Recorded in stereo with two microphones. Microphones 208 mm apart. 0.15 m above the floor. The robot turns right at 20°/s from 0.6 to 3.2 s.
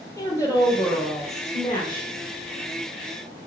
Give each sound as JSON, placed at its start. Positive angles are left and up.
{"t": 0.2, "sound": "a woman speaking", "azimuth_deg": 20, "distance_m": 4.0}